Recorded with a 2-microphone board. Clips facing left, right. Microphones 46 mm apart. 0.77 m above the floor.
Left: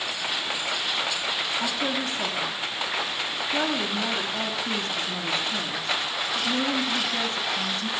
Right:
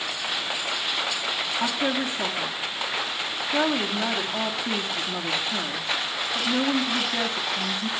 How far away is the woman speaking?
About 1.3 m.